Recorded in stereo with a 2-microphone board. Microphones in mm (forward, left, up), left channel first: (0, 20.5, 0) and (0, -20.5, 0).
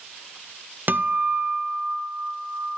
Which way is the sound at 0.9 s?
55° right (ahead or behind).